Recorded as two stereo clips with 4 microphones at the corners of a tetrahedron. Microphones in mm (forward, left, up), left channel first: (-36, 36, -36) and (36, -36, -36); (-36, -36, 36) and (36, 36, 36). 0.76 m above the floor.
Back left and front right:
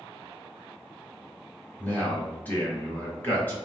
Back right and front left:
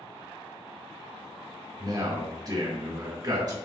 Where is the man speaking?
75° left, 1.1 m.